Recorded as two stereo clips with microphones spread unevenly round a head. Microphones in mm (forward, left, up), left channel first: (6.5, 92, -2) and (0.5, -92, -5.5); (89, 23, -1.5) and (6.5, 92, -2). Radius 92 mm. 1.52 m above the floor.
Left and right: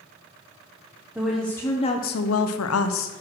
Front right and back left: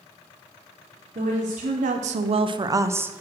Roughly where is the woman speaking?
Behind.